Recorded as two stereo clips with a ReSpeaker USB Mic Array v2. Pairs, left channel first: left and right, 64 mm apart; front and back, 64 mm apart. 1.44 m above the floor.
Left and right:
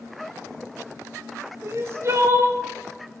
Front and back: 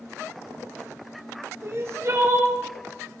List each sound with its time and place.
1.6 s crying: 135° right, 0.6 m